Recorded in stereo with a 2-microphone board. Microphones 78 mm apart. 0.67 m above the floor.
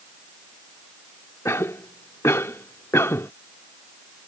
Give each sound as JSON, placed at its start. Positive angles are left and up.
{"t": 1.4, "sound": "a cough", "side_deg": 35}